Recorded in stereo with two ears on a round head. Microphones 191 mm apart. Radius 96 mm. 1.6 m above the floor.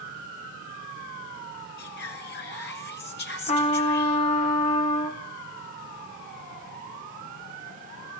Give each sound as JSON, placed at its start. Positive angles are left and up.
{"t": 1.8, "sound": "whispering", "side_deg": 50, "distance_m": 6.0}
{"t": 3.5, "sound": "a trumpet", "side_deg": 35, "distance_m": 3.0}